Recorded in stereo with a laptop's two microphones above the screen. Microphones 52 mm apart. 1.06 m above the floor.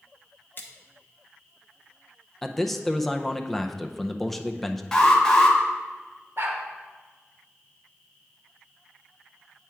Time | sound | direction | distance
0.6 | a splash | 45° left (ahead or behind) | 0.8 m
2.4 | a man speaking | 5° left (ahead or behind) | 0.5 m
4.9 | an alarm | 10° left (ahead or behind) | 1.2 m
6.4 | a dog barking | 60° right (ahead or behind) | 1.3 m